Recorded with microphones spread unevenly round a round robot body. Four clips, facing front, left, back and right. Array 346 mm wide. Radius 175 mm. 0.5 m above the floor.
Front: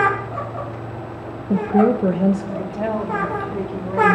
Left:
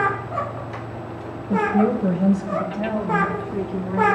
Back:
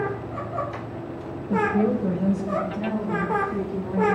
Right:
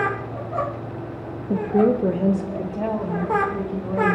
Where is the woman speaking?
25° right, 0.8 m; by 4.2 s 40° right, 3.5 m.